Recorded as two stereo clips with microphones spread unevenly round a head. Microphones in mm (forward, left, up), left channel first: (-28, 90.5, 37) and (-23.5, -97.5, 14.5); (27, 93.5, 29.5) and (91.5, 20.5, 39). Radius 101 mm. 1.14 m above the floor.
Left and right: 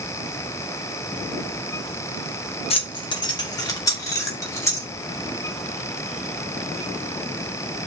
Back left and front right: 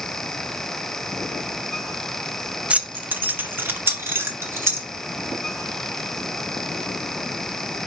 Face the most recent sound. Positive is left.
turn(degrees=15)